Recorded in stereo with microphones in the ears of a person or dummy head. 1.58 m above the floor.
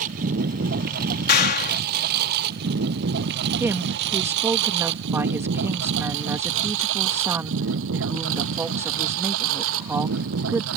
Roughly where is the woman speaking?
Centre.